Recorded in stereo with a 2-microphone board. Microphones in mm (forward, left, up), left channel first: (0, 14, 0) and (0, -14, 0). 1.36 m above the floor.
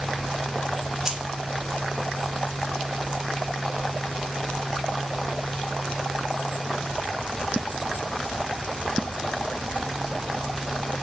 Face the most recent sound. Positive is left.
turn(degrees=-25)  # may be behind; listen again after turning